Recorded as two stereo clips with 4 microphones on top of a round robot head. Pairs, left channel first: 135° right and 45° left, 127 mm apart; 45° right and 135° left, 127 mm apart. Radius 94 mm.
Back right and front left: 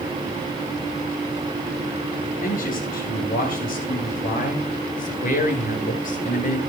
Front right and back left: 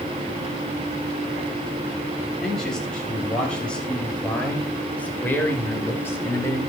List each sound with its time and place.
2.4 s a man speaking: 130° right, 8.5 m; by 6.6 s 115° right, 5.5 m